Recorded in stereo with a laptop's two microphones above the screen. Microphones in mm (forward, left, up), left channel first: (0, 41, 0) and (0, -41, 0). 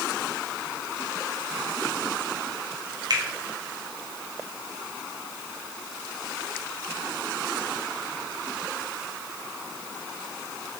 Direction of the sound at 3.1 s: 55° right (ahead or behind).